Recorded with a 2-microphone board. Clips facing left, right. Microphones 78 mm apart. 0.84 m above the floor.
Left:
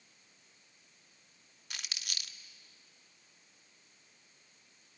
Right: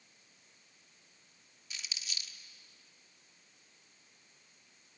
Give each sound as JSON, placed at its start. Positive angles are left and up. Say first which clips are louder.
{"t": 1.7, "sound": "crumpling", "louder": "left 2 dB", "side_deg": 60, "distance_m": 0.9}